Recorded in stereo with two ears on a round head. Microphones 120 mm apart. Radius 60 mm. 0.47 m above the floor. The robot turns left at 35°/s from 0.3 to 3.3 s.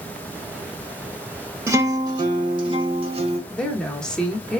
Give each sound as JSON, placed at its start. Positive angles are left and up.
{"t": 1.7, "sound": "a guitar", "azimuth_deg": -30, "distance_m": 0.7}
{"t": 3.5, "sound": "a woman speaking", "side_deg": 5, "distance_m": 0.8}